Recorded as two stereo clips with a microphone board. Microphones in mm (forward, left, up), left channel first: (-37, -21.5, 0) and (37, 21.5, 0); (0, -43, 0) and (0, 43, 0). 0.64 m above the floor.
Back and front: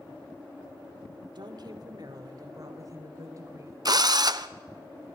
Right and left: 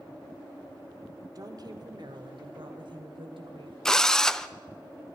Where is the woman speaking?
50° left, 1.5 m; by 3.8 s 80° left, 3 m.